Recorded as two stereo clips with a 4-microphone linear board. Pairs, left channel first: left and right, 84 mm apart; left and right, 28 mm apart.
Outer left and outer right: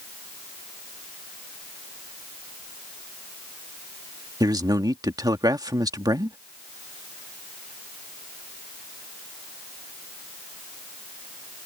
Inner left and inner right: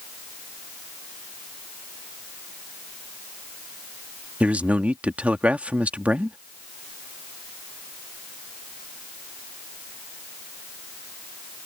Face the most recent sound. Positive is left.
turn(degrees=-55)  # may be behind; listen again after turning